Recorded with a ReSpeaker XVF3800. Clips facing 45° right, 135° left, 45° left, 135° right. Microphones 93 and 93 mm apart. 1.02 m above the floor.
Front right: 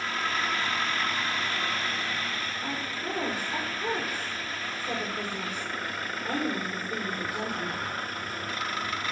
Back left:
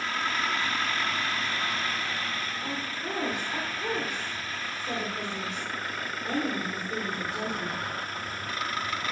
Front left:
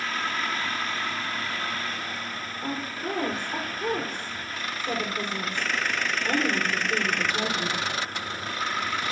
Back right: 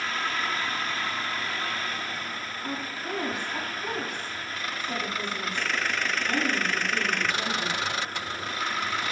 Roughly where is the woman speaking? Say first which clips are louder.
Even, front left 4 dB; ahead left.